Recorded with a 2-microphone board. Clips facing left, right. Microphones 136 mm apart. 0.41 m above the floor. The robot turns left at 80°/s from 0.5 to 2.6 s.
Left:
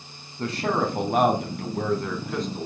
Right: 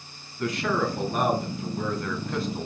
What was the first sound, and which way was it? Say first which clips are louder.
A man speaking: left 1 dB; 150° left.